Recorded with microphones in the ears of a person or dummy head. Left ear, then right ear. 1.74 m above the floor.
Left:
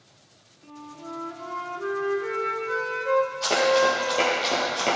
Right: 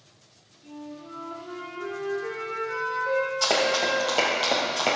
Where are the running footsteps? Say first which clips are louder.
Left 2 dB; 40° right (ahead or behind), 3.5 m; by 5.0 s 5° right (ahead or behind), 2 m.